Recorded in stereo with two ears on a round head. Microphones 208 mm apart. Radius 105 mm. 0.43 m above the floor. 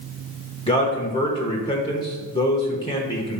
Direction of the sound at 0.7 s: 20° left (ahead or behind).